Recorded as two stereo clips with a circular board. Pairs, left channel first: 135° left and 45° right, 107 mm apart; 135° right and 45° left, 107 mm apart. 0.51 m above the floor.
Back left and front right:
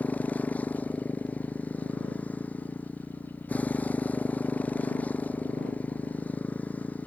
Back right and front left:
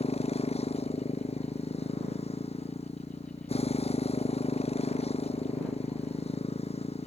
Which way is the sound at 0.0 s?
150° right.